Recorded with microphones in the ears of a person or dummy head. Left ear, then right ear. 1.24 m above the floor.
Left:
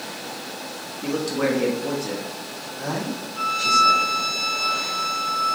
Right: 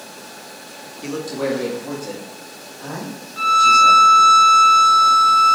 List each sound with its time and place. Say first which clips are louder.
1.0 s a man speaking: left 1 dB; 20° right (ahead or behind), 0.6 m; by 4.1 s 65° left (ahead or behind), 2.5 m
3.4 s a violin: right 7 dB; 30° right (ahead or behind), 0.6 m